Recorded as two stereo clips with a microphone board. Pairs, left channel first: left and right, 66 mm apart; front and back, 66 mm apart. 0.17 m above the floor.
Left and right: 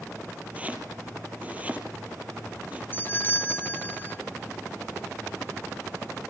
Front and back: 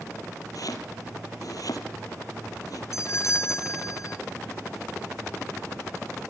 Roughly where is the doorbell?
Ahead left.